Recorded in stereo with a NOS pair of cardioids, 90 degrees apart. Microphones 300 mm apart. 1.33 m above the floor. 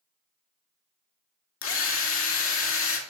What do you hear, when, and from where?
1.6 s a drill: 45° left, 2 m